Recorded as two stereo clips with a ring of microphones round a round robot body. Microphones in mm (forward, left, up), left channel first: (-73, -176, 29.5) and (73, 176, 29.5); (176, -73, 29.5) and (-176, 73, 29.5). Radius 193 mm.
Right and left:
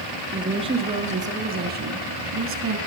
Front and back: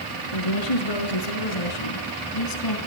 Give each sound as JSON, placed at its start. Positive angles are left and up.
{"t": 0.3, "sound": "a woman speaking", "azimuth_deg": -10, "distance_m": 4.5}